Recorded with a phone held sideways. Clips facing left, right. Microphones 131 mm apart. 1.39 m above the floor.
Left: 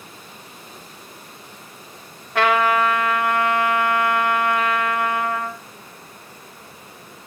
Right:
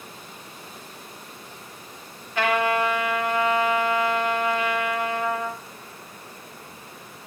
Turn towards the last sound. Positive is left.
turn(degrees=85)